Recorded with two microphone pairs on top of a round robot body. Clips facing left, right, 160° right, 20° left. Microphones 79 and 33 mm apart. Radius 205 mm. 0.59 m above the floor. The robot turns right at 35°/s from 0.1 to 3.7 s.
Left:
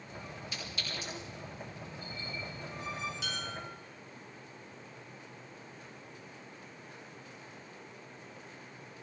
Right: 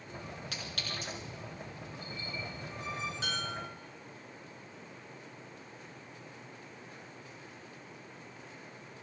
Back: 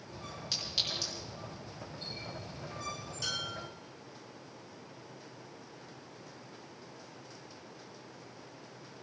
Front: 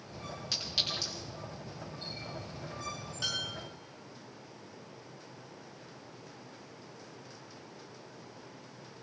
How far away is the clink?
About 6 m.